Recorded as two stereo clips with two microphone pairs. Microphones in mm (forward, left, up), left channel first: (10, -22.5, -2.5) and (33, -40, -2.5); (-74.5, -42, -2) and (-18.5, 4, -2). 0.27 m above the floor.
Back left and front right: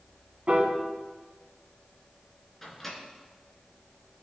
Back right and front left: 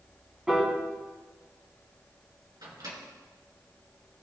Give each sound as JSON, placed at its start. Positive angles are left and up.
{"t": 0.5, "sound": "a piano", "azimuth_deg": -45, "distance_m": 1.6}
{"t": 2.6, "sound": "a microwave", "azimuth_deg": 55, "distance_m": 2.5}